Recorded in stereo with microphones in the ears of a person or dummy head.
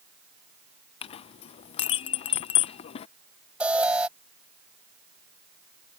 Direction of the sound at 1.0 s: 35° left (ahead or behind).